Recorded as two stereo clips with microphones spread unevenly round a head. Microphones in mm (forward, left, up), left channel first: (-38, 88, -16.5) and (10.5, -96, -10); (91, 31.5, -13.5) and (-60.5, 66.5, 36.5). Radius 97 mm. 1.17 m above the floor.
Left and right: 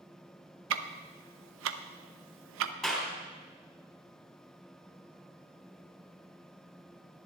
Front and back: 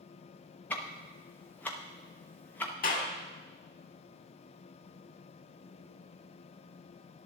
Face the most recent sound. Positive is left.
turn(degrees=15)